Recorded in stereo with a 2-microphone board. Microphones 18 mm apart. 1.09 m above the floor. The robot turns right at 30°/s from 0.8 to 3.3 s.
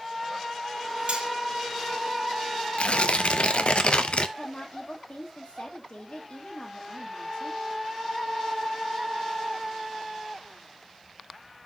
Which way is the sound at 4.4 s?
65° left (ahead or behind).